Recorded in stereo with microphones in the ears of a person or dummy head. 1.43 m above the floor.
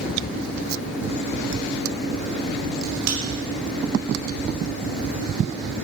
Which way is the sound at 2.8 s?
85° right.